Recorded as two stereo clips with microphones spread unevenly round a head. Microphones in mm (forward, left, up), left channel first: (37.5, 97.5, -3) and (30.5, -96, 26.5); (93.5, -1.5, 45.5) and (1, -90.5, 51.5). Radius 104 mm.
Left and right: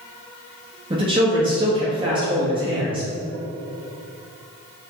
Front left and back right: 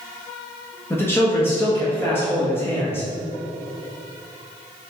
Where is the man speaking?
25° right, 1.6 m.